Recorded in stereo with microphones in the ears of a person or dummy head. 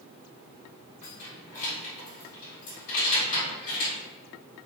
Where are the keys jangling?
35° left (ahead or behind), 1.9 m.